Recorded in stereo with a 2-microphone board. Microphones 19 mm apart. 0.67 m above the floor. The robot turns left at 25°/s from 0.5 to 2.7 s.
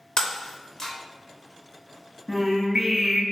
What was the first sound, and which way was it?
Breaking glass, 40° left (ahead or behind).